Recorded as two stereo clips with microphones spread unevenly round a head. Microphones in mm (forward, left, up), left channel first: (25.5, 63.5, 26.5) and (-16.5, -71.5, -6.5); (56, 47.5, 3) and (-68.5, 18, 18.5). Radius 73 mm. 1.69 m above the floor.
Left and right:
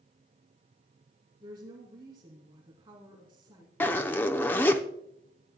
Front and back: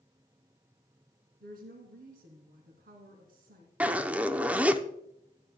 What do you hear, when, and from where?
1.4 s a woman speaking: 165° right, 2.5 m
3.8 s a zipper: 125° left, 0.6 m